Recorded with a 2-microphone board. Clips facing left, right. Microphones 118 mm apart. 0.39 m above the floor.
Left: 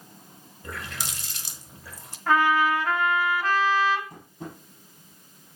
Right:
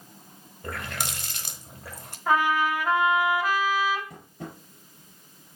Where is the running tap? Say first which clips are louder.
Right 3 dB; 60° right (ahead or behind), 1.1 m.